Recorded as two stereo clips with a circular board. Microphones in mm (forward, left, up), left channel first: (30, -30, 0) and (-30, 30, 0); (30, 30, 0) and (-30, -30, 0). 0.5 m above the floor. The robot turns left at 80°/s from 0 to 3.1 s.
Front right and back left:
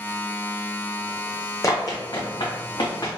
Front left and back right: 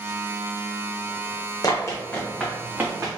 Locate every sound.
1.6 s running footsteps: 5° left, 1.3 m; by 3.2 s 85° right, 2 m